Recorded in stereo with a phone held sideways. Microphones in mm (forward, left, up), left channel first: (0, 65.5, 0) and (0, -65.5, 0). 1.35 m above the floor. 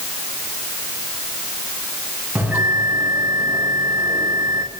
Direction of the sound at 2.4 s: 10° right (ahead or behind).